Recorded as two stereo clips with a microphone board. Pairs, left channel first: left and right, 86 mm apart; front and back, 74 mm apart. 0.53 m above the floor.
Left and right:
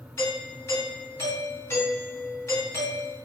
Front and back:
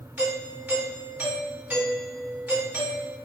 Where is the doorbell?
130° left, 2 m.